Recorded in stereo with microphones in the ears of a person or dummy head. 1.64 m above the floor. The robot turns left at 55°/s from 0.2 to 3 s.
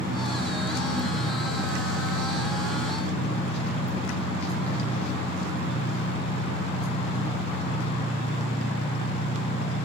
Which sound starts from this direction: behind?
An engine running, at 0.0 s.